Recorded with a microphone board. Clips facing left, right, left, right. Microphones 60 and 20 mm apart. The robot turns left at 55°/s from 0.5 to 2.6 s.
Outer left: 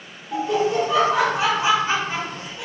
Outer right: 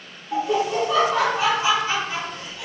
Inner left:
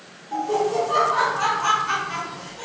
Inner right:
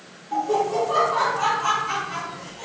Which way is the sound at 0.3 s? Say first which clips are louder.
Outer left 1 dB, even; 5° right (ahead or behind).